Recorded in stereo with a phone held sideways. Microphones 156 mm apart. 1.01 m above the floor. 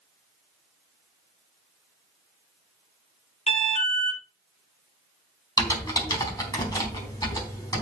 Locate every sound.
3.5 s an alarm: 40° left (ahead or behind), 2 m
5.6 s typing on a keyboard: 20° left (ahead or behind), 3.5 m